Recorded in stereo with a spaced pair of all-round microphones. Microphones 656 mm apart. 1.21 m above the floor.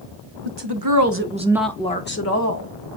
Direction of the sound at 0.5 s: 45° right (ahead or behind).